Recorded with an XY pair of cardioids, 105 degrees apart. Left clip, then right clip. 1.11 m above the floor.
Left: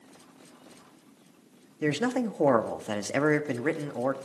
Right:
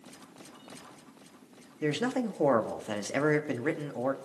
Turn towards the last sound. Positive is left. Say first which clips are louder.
# left 2 dB
turn(degrees=20)